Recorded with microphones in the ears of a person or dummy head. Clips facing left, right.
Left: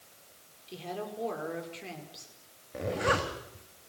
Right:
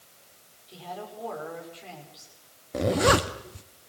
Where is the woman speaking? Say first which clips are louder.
Left 1 dB; 30° left (ahead or behind), 5.5 m.